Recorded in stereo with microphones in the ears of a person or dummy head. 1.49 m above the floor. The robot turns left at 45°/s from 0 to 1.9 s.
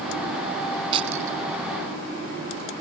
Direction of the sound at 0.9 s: 30° right (ahead or behind).